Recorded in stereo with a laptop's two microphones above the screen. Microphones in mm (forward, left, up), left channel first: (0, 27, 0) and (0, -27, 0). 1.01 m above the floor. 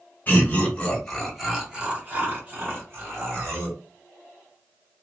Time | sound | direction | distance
0.3 | laughter | 30° left (ahead or behind) | 1.0 m